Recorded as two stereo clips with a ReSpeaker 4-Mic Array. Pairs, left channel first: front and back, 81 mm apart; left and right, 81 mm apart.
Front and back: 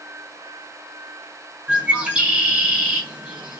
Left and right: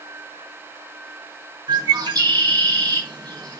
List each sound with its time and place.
1.7 s a bird: 105° right, 1.9 m